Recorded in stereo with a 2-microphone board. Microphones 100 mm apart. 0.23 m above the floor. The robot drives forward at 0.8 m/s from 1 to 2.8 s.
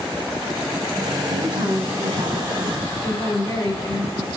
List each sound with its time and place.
1.2 s a woman speaking: 55° right (ahead or behind), 2.5 m; by 4.3 s 50° right (ahead or behind), 2.5 m